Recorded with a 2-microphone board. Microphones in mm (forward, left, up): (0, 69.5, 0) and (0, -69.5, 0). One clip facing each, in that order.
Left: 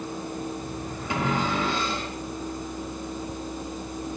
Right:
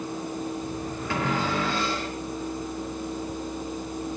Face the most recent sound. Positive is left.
turn(degrees=15)  # may be behind; listen again after turning